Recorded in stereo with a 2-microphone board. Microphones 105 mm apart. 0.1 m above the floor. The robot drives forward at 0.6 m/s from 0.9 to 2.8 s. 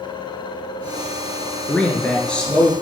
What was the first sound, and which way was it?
A man speaking, 10° left (ahead or behind).